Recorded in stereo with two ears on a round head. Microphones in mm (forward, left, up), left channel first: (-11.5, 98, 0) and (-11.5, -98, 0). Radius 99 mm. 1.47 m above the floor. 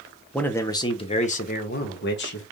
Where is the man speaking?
5° left (ahead or behind), 1.0 m; by 2.4 s 60° left (ahead or behind), 1.5 m.